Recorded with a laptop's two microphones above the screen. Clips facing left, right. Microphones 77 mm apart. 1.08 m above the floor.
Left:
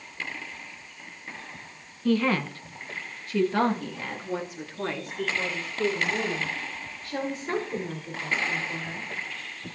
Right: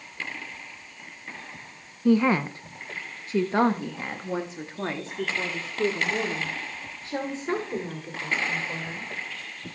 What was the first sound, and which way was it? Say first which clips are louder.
A woman speaking: right 3 dB; 15° right (ahead or behind).